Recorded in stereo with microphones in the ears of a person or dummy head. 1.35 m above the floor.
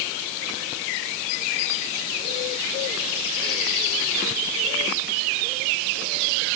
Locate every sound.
Only background noise.